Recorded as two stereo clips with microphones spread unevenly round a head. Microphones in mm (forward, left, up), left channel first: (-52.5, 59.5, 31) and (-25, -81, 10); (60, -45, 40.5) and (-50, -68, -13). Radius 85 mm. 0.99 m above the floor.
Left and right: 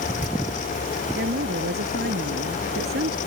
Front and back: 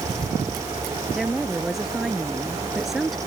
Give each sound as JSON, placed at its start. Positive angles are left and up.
{"t": 1.1, "sound": "a woman speaking", "azimuth_deg": -80}